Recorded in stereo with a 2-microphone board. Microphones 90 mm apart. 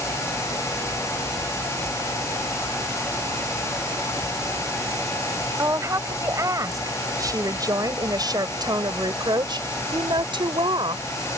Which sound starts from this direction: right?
A woman speaking, at 5.6 s.